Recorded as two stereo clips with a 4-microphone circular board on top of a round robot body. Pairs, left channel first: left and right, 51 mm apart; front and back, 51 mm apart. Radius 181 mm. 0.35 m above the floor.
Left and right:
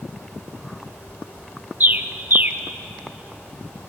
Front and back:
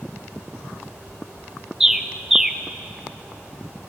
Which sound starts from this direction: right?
A bird, at 1.8 s.